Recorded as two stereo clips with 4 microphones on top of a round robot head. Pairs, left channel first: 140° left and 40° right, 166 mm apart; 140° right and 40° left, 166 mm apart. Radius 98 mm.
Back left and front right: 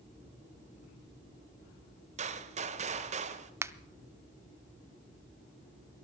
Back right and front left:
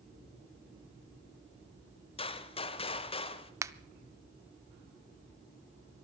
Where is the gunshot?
85° right, 0.9 m.